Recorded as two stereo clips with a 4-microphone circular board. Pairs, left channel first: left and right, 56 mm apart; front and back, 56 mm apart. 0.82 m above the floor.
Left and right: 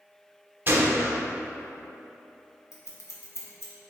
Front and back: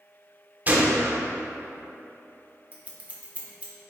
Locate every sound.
0.7 s a gunshot: 130° right, 0.5 m
2.7 s scissors: 120° left, 0.7 m